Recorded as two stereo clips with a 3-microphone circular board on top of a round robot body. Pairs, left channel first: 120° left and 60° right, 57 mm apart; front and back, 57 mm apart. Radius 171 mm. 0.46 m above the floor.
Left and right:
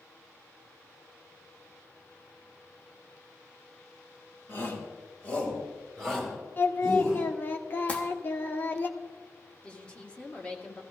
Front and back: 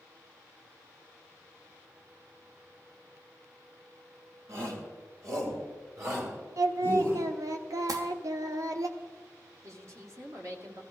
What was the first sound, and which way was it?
A shout, 165° left.